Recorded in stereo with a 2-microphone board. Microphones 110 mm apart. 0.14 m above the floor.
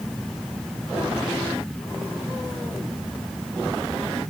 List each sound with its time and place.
Only background noise.